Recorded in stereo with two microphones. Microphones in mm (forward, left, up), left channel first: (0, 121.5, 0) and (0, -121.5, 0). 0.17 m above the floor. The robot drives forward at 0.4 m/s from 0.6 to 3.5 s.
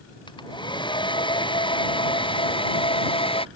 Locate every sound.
0.3 s a hair dryer: 20° left (ahead or behind)